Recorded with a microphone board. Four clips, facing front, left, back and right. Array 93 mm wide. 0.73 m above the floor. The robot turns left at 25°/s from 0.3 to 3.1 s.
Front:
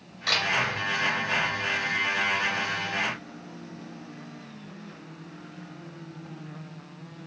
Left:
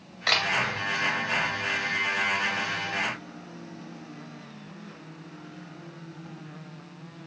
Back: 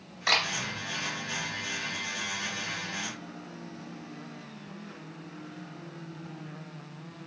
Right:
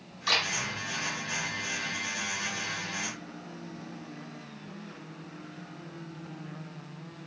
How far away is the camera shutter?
About 1.6 m.